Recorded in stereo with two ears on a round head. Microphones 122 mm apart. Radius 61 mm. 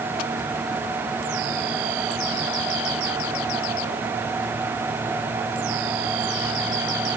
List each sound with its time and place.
Only background noise.